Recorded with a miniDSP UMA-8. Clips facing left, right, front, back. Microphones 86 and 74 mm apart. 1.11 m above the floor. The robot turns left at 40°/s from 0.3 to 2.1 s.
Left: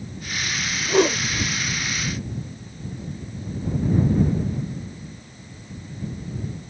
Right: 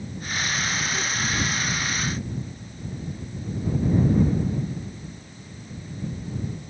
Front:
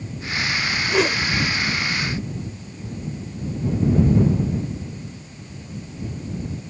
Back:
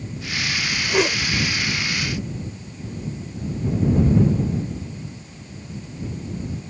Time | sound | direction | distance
0.9 | a whoosh | 95° left | ?